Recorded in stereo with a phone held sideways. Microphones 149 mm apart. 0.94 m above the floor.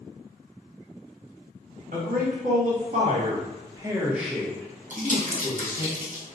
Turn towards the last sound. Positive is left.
turn(degrees=-55)  # may be behind; listen again after turning